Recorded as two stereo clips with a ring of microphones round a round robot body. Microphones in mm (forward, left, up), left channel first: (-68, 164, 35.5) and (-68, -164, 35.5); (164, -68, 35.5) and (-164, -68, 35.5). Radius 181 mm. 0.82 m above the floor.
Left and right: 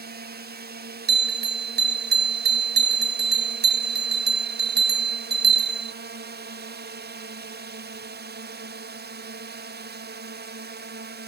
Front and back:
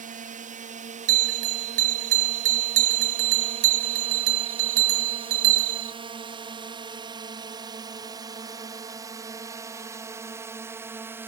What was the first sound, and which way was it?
A drone, 130° right.